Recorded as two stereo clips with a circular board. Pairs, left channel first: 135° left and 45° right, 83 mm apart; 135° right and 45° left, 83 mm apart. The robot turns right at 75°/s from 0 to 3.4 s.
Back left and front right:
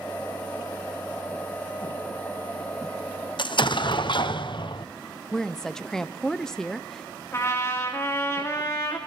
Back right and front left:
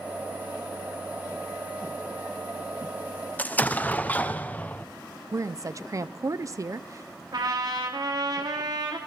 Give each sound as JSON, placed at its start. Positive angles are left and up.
{"t": 3.4, "sound": "an explosion", "azimuth_deg": 155, "distance_m": 0.9}
{"t": 5.3, "sound": "a woman speaking", "azimuth_deg": 55, "distance_m": 0.5}
{"t": 7.3, "sound": "a trumpet", "azimuth_deg": 80, "distance_m": 3.0}